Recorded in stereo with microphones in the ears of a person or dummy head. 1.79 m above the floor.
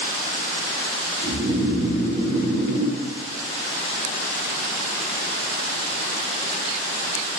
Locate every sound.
1.2 s snoring: 75° right (ahead or behind), 1.1 m